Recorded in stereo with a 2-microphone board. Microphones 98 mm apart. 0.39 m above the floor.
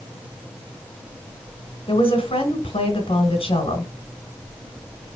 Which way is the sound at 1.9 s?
70° left (ahead or behind).